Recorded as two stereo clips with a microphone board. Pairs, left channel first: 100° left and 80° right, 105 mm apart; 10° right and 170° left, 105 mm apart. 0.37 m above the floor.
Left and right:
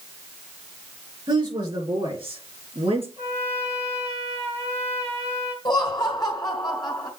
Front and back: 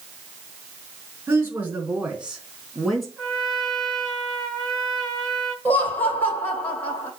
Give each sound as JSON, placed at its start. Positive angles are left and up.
{"t": 1.3, "sound": "a woman speaking", "azimuth_deg": -120, "distance_m": 4.0}
{"t": 3.2, "sound": "a trumpet", "azimuth_deg": -95, "distance_m": 4.5}
{"t": 5.7, "sound": "laughter", "azimuth_deg": 60, "distance_m": 2.5}